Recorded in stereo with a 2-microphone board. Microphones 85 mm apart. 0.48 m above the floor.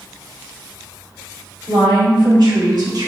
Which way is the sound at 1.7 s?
70° right (ahead or behind).